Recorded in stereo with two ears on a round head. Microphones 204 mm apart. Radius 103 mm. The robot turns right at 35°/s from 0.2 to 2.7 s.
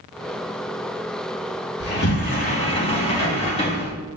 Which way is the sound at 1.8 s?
120° left.